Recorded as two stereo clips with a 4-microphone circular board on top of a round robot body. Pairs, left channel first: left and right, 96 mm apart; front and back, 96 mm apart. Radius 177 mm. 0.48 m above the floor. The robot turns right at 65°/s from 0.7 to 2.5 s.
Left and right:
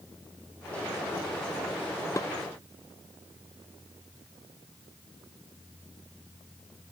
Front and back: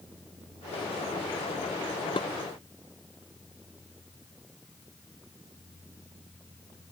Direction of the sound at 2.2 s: 30° left.